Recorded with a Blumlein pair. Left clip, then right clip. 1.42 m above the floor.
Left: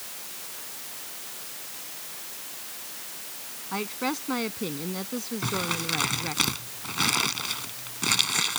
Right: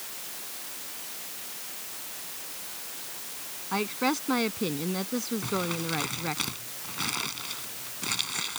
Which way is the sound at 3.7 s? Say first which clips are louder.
Right 2 dB; 10° right.